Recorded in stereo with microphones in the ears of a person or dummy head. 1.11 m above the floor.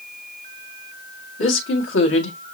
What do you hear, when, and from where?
1.4 s a woman speaking: 85° left, 1.7 m